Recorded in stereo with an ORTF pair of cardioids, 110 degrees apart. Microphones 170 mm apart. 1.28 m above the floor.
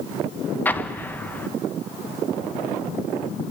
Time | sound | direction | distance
0.7 | an explosion | 10° left | 1.2 m